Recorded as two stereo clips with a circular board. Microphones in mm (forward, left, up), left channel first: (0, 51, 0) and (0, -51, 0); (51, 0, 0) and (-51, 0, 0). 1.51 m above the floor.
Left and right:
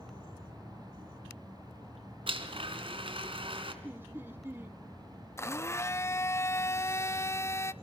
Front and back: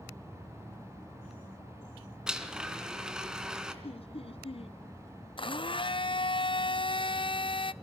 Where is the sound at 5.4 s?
30° left, 0.7 m.